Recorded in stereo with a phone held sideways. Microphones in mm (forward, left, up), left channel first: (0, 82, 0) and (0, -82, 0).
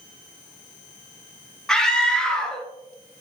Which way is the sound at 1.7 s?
5° left (ahead or behind).